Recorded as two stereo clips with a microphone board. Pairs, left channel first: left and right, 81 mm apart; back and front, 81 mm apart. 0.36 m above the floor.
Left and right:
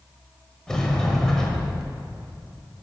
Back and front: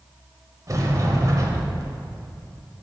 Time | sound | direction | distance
0.7 | a sliding door | 10° left | 1.6 m